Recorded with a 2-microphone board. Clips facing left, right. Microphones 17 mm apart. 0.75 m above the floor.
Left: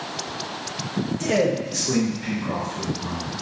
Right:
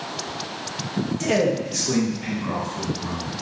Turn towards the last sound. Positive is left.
turn(degrees=0)  # may be behind; listen again after turning